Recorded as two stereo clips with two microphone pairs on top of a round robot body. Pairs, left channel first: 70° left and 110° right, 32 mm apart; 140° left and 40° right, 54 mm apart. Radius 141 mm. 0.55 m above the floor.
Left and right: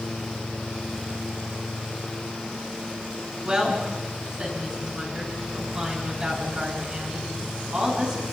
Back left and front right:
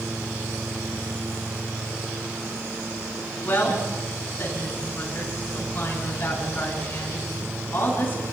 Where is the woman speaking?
170° right, 8.5 m.